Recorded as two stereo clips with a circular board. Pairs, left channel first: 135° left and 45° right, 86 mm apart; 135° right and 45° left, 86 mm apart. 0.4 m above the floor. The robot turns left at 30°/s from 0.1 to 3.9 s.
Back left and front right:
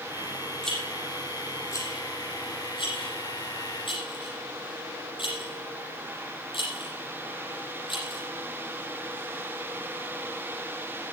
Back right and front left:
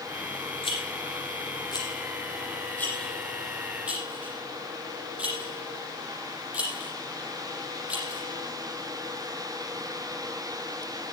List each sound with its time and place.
0.6 s a rattle: 140° right, 7.5 m; by 8.2 s 120° left, 7.5 m